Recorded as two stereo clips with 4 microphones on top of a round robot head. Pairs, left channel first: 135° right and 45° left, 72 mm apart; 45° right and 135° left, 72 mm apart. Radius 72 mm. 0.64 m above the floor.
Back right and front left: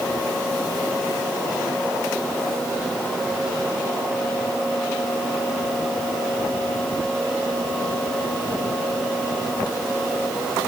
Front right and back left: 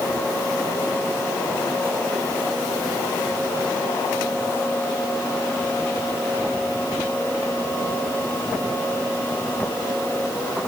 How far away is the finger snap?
No finger snap in this recording.